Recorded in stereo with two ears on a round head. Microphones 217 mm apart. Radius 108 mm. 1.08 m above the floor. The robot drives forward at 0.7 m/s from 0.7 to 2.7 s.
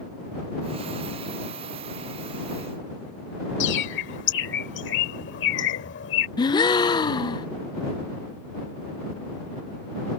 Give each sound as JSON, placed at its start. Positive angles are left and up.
{"t": 3.6, "sound": "a bird", "side_deg": 50}
{"t": 6.4, "sound": "a gasp", "side_deg": 20}